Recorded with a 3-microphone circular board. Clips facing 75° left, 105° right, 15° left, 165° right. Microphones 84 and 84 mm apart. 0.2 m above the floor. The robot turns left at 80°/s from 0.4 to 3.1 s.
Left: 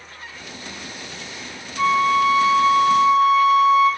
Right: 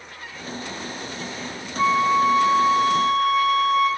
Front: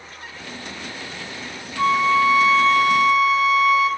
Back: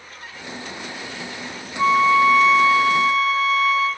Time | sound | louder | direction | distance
1.8 | a flute | left 1 dB, back 2 dB | 15° right | 3 m